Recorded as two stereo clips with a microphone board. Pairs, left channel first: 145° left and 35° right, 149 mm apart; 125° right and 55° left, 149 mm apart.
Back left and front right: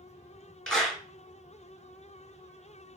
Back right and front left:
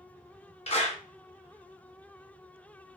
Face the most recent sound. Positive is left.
turn(degrees=-130)